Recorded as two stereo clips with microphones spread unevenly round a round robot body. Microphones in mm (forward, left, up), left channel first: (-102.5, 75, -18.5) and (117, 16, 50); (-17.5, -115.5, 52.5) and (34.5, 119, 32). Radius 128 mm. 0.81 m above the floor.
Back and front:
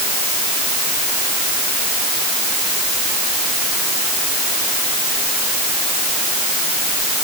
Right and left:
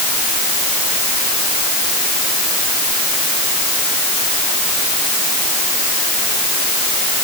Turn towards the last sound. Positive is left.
No sound to turn to.